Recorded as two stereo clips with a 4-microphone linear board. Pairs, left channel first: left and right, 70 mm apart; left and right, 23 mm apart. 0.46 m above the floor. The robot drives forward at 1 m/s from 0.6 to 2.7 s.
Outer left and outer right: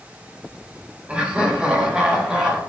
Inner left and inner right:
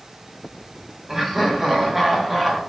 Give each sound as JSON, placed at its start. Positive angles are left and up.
{"t": 1.1, "sound": "laughter", "side_deg": -15, "distance_m": 3.0}